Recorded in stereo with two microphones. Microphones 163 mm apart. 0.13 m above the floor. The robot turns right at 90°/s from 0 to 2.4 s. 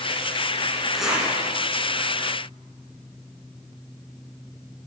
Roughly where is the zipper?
Centre.